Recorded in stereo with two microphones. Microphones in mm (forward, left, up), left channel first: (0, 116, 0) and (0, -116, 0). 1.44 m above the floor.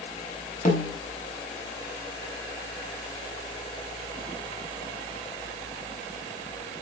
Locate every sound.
0.7 s a snare drum: 35° left (ahead or behind), 5 m